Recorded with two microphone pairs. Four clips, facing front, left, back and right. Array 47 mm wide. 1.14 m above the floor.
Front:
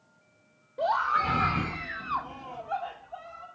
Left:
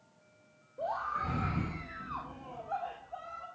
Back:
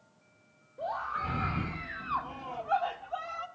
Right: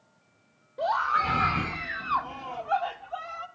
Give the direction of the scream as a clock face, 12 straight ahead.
1 o'clock.